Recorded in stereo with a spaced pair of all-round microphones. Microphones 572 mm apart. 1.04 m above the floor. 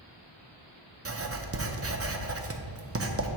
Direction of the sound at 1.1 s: 25° right (ahead or behind).